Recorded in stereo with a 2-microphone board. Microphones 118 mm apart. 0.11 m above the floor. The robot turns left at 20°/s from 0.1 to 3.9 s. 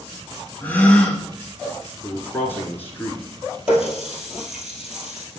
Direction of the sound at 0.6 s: 15° left (ahead or behind).